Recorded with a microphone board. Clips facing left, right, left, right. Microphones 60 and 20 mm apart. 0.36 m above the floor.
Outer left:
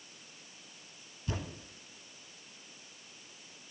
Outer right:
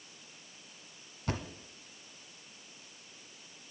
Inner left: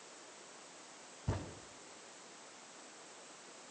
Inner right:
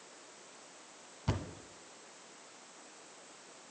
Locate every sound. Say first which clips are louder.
1.3 s a thud: outer right 2 dB, inner right 4 dB; 70° right (ahead or behind), 1.0 m